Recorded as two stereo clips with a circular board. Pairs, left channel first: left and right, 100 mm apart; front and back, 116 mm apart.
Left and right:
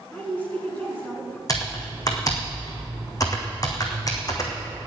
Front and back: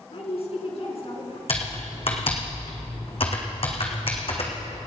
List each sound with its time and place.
0.1 s a woman speaking: 15° left, 3 m
1.5 s typing on a keyboard: 35° left, 2.5 m